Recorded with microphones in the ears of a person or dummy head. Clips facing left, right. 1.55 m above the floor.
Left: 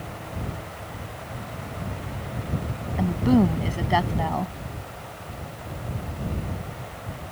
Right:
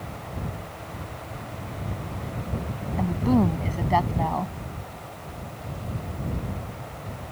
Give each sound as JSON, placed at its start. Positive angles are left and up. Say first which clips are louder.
{"t": 3.0, "sound": "a woman speaking", "louder": "left 2 dB", "side_deg": 10}